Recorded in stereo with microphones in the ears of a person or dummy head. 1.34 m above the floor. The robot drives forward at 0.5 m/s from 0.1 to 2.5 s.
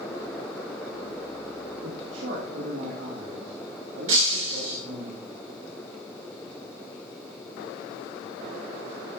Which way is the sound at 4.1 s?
45° right (ahead or behind).